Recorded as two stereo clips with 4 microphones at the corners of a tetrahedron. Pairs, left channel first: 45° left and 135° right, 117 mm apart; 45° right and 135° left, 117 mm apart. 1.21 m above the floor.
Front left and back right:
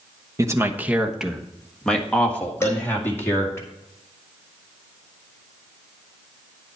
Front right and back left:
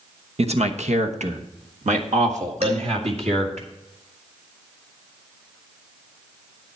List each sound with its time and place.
0.4 s a man speaking: 160° left, 0.9 m; by 3.6 s 115° left, 2.5 m
2.6 s dishes clattering: 110° left, 4 m